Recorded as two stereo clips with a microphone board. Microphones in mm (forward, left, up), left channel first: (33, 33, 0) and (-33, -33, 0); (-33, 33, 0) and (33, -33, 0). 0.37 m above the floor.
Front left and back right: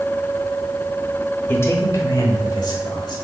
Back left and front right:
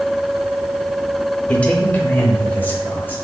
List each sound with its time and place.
1.5 s a man speaking: 75° left, 0.9 m; by 3.1 s 70° left, 1.5 m